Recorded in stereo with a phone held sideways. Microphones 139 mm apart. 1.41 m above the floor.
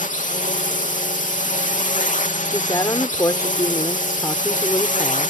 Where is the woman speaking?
25° left (ahead or behind).